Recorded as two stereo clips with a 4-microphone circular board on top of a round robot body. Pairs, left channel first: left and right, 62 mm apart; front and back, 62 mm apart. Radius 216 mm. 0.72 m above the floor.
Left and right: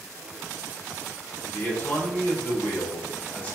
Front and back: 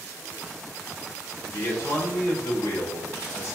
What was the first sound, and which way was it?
A man speaking, 30° left.